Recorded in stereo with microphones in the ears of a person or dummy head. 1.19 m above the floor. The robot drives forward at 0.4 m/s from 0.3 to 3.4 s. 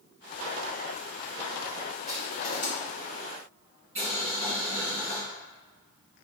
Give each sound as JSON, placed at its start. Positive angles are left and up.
{"t": 2.1, "sound": "crushing", "side_deg": 40, "distance_m": 0.9}
{"t": 4.0, "sound": "boiling", "side_deg": -10, "distance_m": 2.0}